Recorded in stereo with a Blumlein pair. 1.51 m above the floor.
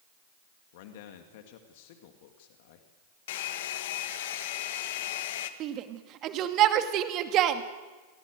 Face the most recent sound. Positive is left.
turn(degrees=-35)